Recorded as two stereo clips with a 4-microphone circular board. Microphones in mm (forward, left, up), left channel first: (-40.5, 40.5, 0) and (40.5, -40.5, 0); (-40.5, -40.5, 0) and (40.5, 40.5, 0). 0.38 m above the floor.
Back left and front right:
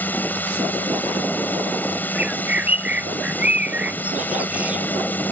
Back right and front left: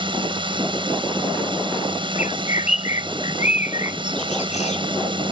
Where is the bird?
125° right.